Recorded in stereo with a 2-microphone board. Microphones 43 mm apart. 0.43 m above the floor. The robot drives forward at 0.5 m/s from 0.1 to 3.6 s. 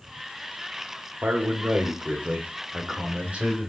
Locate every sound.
1.2 s a man speaking: 40° right (ahead or behind), 1.2 m; by 3.7 s 30° right (ahead or behind), 1.5 m